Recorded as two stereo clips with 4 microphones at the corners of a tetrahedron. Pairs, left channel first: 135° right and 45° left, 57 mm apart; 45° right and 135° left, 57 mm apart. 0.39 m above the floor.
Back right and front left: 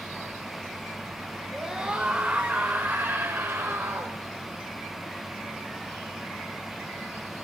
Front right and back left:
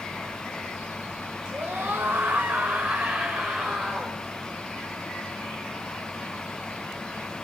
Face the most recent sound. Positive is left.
turn(degrees=50)